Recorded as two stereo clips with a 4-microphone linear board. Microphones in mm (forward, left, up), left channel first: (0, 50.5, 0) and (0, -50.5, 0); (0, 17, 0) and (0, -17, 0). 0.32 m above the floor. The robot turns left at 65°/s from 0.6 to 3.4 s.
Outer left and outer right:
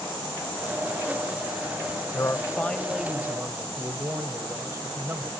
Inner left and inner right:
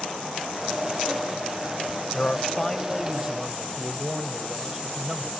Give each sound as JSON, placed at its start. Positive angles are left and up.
{"t": 2.1, "sound": "a man speaking", "azimuth_deg": 50, "distance_m": 1.4}